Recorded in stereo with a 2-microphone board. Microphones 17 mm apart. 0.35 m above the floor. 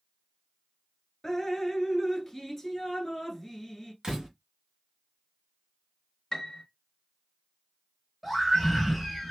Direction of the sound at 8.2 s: 5° right (ahead or behind).